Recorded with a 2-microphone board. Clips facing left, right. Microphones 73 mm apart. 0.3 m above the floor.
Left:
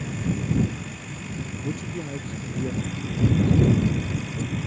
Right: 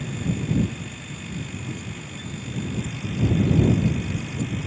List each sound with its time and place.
1.6 s a man speaking: 75° left (ahead or behind)